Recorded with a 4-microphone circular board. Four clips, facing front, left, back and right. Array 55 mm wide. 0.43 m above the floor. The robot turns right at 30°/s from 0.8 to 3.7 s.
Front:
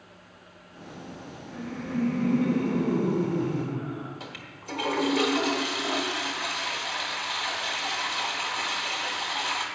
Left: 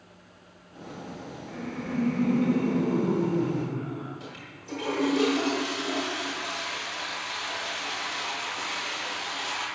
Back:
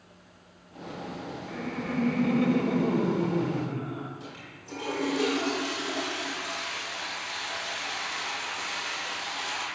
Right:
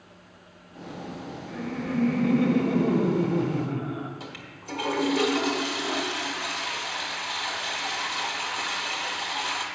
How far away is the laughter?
About 1.4 m.